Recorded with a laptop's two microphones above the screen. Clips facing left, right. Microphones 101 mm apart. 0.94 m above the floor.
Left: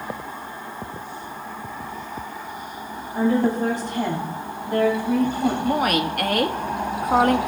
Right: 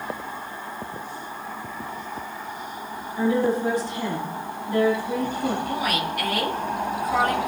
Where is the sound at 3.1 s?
70° left (ahead or behind), 3 m.